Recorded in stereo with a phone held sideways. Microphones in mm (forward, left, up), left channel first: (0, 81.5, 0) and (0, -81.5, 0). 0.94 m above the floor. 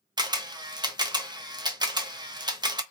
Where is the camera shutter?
25° right (ahead or behind), 0.6 m.